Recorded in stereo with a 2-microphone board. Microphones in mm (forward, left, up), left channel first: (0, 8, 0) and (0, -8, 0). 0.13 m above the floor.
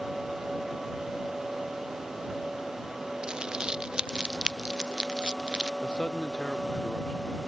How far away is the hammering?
No hammering in this recording.